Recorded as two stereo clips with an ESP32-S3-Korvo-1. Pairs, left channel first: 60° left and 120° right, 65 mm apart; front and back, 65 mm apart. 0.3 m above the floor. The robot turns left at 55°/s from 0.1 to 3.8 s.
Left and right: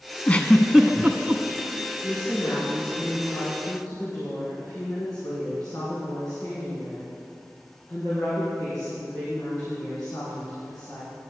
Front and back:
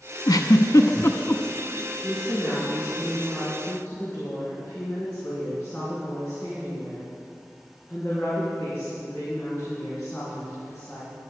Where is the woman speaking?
150° left, 3.5 m; by 11.2 s 55° left, 3.5 m.